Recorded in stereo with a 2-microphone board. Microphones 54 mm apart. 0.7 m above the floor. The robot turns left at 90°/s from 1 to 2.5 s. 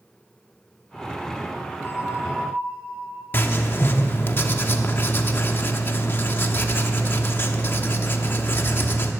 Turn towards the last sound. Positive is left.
turn(degrees=40)  # may be behind; listen again after turning